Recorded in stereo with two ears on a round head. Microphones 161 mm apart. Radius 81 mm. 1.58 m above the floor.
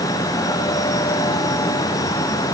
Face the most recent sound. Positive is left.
No sound to turn to.